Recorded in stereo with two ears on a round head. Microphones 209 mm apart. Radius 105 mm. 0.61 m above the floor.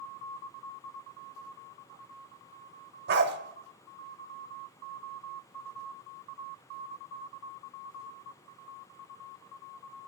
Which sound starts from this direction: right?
A dog barking, at 3.1 s.